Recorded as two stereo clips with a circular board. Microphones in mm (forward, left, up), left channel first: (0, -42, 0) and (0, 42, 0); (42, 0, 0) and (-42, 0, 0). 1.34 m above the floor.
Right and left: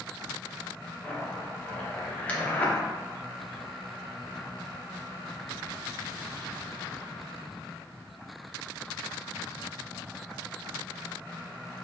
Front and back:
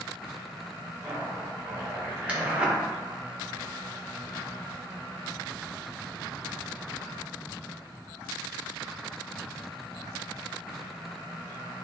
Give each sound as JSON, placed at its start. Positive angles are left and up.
{"t": 1.0, "sound": "a zipper", "azimuth_deg": -130, "distance_m": 0.6}